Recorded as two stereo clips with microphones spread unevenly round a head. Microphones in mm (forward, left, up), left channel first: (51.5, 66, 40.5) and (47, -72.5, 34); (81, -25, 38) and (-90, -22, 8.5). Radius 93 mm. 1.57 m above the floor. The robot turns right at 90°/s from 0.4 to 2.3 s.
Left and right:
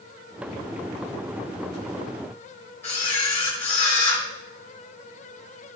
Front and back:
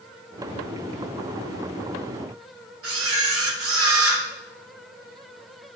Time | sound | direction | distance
2.8 | a camera shutter | 165° left | 3 m